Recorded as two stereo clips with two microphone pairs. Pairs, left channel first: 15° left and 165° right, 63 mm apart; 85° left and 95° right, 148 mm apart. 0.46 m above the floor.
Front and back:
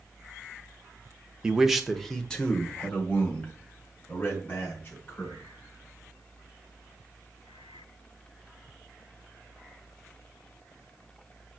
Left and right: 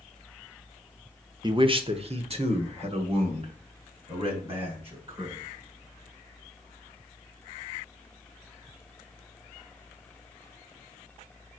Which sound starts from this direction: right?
A man speaking, at 1.4 s.